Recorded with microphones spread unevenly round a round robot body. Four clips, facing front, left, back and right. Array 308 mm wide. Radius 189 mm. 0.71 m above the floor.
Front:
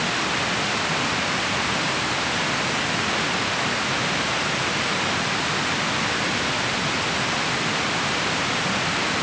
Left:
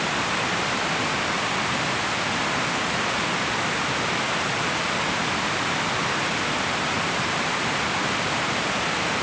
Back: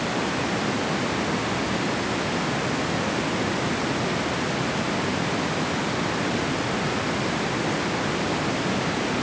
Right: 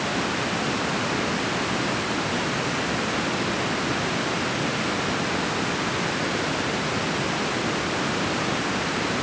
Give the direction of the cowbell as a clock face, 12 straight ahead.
I don't hear a cowbell.